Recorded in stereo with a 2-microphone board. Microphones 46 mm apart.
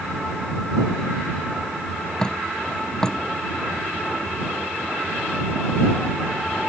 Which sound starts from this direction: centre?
Dripping, at 2.2 s.